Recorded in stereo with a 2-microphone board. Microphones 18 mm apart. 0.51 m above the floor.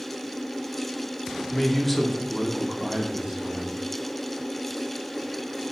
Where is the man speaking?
25° left (ahead or behind), 1.0 m; by 3.8 s 60° right (ahead or behind), 1.3 m.